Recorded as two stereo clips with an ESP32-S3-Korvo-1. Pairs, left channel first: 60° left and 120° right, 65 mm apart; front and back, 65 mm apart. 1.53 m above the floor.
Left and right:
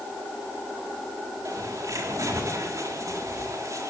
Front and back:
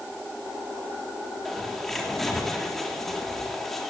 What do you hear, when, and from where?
1.4 s a bird: 85° right, 3.5 m